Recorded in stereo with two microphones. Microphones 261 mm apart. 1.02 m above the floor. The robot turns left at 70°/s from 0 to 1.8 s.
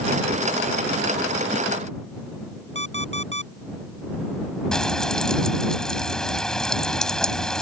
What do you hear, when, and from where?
2.8 s an alarm clock: 45° right (ahead or behind)
4.7 s frying: centre (ahead or behind)